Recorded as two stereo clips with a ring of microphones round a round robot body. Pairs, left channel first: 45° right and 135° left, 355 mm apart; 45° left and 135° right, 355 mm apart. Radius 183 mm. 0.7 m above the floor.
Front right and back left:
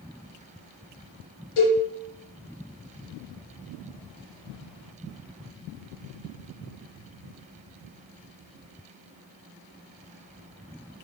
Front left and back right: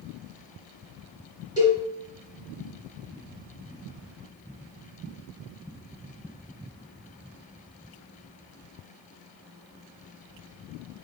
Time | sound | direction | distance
1.6 | a cowbell | 55° right | 4 m